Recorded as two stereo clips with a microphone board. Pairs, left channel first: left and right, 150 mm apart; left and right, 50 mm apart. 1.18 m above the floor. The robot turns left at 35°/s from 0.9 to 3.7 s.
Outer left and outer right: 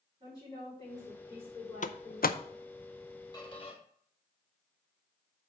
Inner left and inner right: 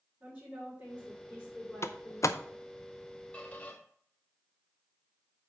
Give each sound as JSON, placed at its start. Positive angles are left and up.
{"t": 0.2, "sound": "a woman speaking", "azimuth_deg": -150, "distance_m": 4.0}
{"t": 1.8, "sound": "a door slam", "side_deg": 55, "distance_m": 0.6}
{"t": 3.3, "sound": "a squeak", "side_deg": 25, "distance_m": 1.7}